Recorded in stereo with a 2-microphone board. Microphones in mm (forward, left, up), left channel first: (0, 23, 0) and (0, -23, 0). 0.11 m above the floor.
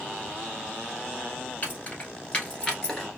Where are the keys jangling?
40° left (ahead or behind), 1.3 m; by 3.1 s 10° left (ahead or behind), 1.2 m.